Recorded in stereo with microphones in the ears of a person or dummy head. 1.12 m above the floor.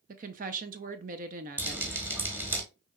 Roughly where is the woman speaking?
Right.